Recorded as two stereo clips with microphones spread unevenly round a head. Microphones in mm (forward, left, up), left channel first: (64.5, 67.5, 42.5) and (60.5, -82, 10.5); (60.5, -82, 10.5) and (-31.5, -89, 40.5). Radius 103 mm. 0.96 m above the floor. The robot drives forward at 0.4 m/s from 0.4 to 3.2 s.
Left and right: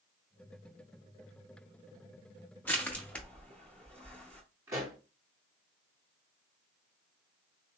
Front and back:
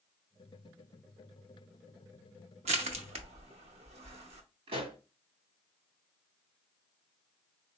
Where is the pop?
165° right, 1.2 m.